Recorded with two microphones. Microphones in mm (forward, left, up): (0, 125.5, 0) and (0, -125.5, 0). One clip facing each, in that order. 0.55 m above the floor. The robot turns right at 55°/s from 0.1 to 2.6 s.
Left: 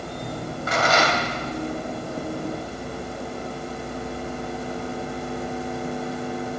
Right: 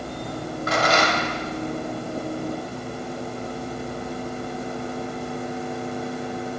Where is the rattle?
70° right, 1.6 m; by 1.3 s 35° right, 1.6 m.